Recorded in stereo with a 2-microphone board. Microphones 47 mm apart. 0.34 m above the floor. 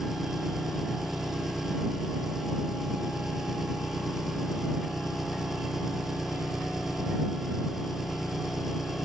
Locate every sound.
0.0 s an engine running: 5° right (ahead or behind)